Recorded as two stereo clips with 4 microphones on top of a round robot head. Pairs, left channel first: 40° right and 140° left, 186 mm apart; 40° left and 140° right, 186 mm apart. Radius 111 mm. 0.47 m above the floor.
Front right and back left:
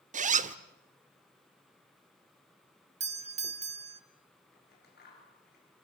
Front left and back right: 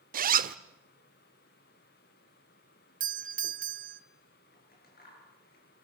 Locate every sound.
0.1 s a zipper: 175° right, 1.2 m
3.0 s a doorbell: 175° right, 1.9 m
4.5 s scissors: straight ahead, 8.5 m